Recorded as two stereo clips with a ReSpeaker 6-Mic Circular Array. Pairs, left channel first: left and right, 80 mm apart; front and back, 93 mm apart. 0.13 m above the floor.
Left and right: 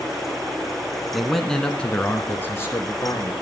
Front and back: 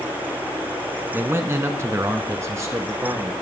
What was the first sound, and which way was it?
A man speaking, 175° right.